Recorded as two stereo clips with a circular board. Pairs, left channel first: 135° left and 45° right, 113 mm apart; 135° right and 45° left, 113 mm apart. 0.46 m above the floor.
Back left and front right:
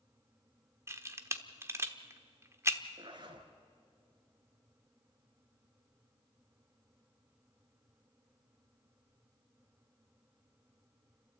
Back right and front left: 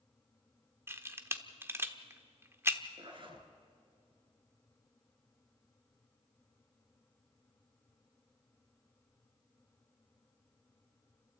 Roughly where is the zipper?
Ahead.